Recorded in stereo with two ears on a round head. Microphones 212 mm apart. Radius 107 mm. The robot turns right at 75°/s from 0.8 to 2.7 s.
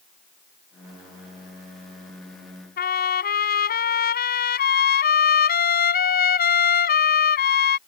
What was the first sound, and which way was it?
A trumpet, 45° left (ahead or behind).